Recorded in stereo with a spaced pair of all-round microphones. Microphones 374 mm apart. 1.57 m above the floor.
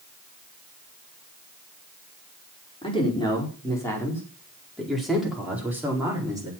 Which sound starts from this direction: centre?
A man speaking, at 2.8 s.